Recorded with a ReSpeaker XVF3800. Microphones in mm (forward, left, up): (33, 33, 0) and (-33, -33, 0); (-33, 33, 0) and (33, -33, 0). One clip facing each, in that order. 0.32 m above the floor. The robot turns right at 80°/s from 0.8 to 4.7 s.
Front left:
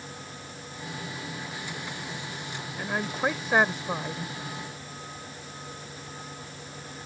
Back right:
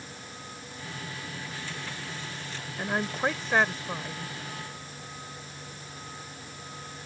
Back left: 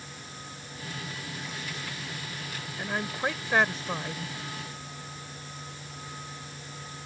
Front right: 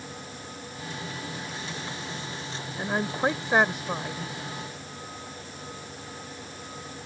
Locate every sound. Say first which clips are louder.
2.8 s a woman speaking: even, front right 5 dB; 70° right; by 4.3 s 55° left